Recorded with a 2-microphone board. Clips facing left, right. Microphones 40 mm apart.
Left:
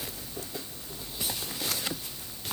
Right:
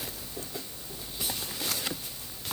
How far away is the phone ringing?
No phone ringing in this recording.